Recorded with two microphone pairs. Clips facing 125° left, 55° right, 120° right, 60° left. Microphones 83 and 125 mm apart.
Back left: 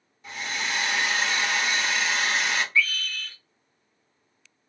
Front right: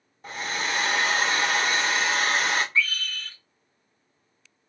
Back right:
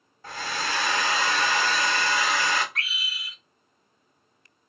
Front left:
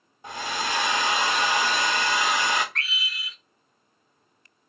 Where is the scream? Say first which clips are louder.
Back left 1 dB, front left 2 dB; 45° right, 0.9 m.